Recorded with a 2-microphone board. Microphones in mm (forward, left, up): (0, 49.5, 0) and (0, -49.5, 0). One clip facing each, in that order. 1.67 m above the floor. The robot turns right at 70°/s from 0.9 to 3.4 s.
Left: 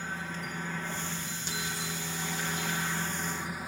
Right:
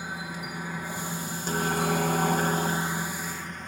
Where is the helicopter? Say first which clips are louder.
Right 2 dB; 165° right; by 3.7 s 10° left.